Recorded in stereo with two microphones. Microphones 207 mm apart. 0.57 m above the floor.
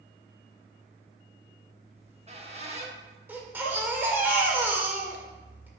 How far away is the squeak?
About 0.8 m.